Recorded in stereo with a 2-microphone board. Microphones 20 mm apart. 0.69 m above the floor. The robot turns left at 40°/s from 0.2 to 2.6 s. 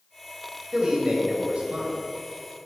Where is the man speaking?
35° right, 3 m; by 1.9 s 85° right, 3 m.